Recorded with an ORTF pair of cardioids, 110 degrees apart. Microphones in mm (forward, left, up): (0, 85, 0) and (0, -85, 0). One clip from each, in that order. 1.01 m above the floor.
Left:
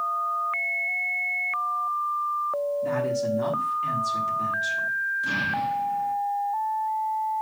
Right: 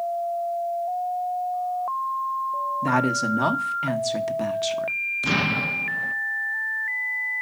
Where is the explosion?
55° right, 0.8 m.